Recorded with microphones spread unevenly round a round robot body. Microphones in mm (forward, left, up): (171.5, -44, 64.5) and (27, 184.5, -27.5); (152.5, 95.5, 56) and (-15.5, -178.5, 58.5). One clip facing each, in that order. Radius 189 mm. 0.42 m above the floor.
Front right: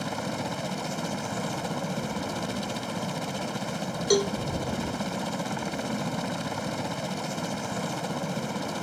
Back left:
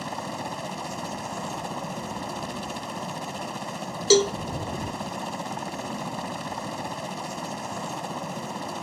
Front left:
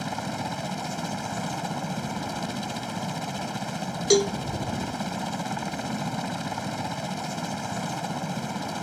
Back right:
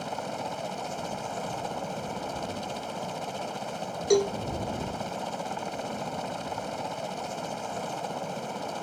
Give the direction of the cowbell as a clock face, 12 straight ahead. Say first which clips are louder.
Back left 4 dB, front left 2 dB; 8 o'clock.